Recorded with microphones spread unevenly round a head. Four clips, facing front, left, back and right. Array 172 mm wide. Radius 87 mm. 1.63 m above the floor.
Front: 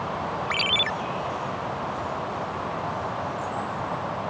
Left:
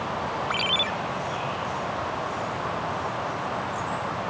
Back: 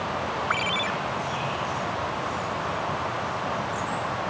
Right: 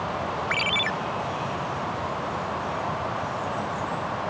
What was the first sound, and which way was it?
A ringtone, 5° right.